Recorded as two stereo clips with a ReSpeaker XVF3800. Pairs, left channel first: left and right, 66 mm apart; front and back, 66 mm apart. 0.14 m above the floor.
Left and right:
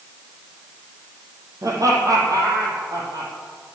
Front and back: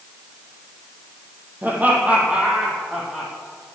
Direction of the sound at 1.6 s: 120° right.